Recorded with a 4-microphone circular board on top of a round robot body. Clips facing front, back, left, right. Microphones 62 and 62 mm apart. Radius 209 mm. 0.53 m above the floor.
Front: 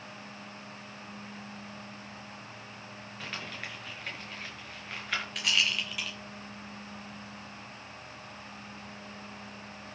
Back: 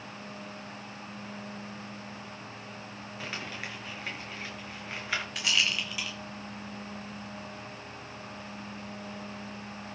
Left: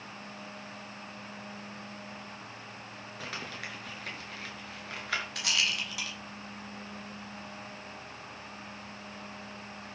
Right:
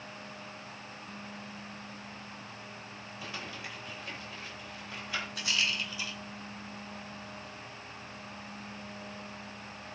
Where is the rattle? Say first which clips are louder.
Even, right 2 dB; 90° left, 4 m.